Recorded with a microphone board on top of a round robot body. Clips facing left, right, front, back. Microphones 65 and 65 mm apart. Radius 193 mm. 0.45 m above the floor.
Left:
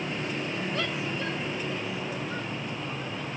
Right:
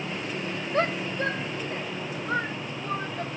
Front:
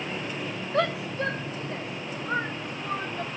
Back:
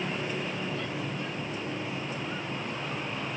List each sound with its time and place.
0.7 s a shout: 35° right; by 3.3 s 45° right